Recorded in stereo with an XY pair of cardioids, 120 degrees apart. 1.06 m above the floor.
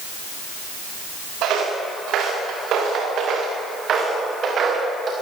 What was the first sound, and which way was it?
Footsteps, 70° right.